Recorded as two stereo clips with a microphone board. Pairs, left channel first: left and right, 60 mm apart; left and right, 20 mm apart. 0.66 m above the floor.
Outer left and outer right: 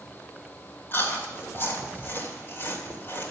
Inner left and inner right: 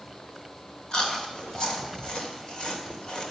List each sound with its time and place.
0.9 s chewing: 40° left (ahead or behind), 2 m